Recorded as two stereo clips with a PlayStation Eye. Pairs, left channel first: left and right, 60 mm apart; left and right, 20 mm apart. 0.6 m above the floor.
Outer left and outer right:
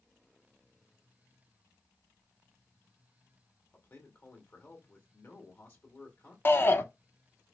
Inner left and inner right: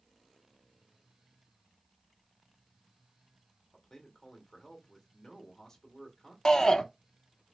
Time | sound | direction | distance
3.7 | a man speaking | 35° left (ahead or behind) | 1.8 m
6.5 | a shout | 35° left (ahead or behind) | 0.8 m